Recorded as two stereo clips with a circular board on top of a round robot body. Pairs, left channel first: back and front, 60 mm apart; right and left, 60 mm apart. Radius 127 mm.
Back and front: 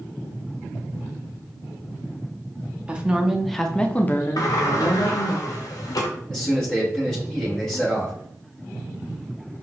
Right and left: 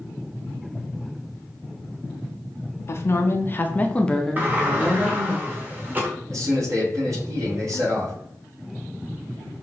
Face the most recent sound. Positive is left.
turn(degrees=105)